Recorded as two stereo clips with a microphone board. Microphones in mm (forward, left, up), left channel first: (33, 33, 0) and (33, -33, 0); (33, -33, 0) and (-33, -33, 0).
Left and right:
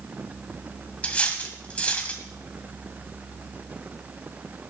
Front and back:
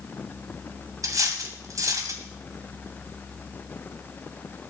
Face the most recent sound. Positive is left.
turn(degrees=160)